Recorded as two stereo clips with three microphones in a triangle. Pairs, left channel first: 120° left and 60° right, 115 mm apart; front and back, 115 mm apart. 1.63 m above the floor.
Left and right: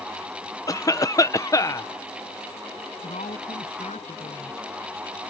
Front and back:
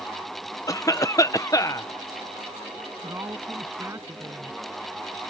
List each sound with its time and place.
0.7 s a cough: 60° left
3.0 s a woman speaking: 115° left